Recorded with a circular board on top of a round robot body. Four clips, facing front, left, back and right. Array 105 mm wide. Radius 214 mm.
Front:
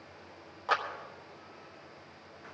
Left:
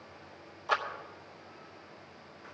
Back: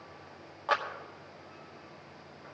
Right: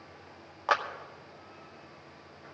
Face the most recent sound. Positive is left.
turn(degrees=-100)